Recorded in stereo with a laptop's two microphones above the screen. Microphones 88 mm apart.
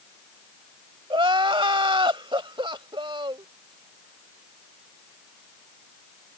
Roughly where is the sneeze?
I don't hear a sneeze.